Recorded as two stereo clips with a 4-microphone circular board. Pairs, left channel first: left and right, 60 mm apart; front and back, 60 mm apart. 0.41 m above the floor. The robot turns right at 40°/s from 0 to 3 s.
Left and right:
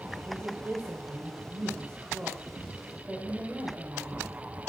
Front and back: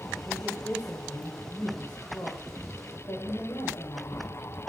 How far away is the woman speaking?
About 1.5 m.